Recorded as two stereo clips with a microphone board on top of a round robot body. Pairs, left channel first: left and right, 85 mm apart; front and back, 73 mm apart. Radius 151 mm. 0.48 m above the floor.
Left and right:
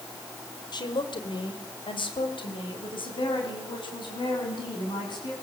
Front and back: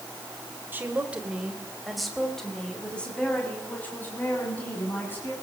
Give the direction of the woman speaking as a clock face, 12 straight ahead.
8 o'clock.